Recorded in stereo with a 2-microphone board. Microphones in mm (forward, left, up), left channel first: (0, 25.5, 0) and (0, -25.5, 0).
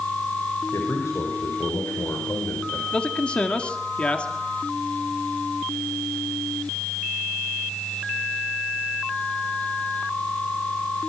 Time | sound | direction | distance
0.7 | a man speaking | 80° left | 6 m
2.9 | a man speaking | 25° left (ahead or behind) | 2 m